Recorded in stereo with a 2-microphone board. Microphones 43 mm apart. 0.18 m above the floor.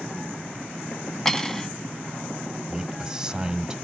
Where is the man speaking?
10° right (ahead or behind), 1.1 m.